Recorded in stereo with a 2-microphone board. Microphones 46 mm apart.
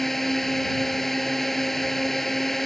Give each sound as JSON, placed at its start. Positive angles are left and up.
{"t": 0.0, "sound": "a drone", "side_deg": 5}